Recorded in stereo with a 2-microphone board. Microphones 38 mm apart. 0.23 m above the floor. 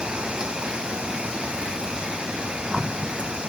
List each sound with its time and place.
0.0 s an insect: 25° right (ahead or behind)